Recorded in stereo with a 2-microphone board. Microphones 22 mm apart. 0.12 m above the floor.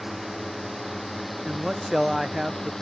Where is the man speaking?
20° right (ahead or behind).